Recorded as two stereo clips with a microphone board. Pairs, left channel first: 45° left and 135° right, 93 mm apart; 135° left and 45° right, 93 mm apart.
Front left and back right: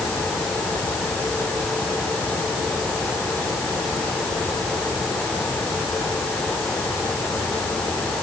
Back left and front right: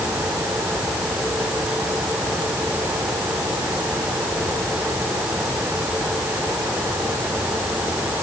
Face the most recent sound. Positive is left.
No sound to turn to.